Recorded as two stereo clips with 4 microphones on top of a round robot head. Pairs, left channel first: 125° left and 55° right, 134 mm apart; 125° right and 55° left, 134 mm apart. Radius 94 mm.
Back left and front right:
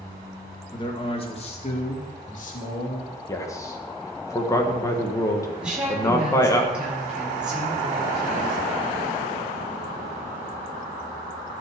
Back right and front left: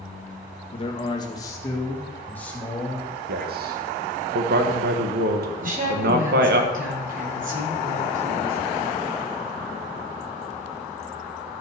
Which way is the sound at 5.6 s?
30° left.